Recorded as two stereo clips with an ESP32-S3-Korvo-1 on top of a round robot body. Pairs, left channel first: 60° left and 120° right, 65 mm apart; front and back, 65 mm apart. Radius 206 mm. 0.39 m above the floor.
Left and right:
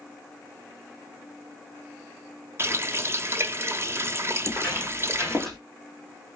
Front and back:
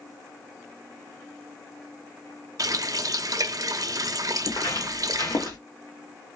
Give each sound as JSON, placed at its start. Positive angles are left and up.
{"t": 2.6, "sound": "a running tap", "azimuth_deg": -165, "distance_m": 0.7}
{"t": 4.5, "sound": "footsteps", "azimuth_deg": -15, "distance_m": 2.0}